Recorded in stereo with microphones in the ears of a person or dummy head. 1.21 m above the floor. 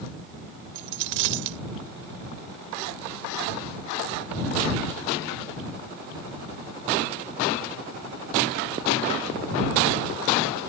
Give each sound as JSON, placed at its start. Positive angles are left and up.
{"t": 0.8, "sound": "a dropped coin", "side_deg": -65}